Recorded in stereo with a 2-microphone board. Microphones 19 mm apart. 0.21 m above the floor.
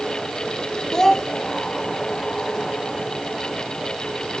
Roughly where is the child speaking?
Left.